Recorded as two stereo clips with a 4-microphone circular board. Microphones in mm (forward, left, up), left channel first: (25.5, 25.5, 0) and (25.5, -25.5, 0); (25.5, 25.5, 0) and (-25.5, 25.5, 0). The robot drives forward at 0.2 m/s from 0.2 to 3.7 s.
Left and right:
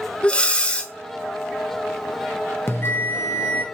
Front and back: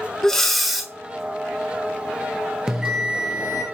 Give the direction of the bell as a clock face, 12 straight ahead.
9 o'clock.